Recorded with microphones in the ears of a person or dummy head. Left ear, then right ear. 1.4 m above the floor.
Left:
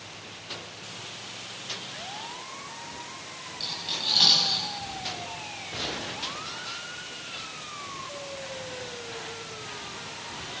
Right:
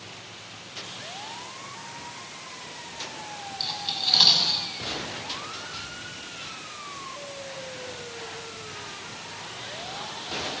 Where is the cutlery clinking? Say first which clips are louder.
Right 2 dB; 20° right (ahead or behind), 7 m.